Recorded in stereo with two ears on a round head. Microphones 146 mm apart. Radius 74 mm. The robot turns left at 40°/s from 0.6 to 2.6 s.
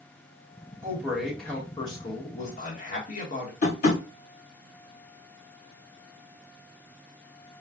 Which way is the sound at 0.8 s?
165° right.